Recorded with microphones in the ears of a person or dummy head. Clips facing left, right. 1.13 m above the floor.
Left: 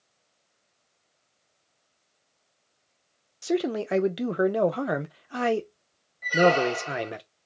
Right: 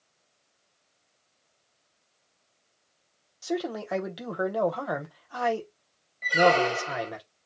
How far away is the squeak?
About 0.9 m.